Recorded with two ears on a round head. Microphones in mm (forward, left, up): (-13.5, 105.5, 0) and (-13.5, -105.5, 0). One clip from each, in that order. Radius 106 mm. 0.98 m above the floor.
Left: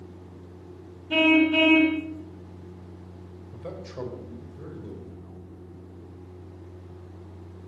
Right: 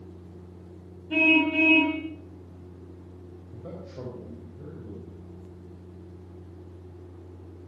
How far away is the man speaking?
About 5 m.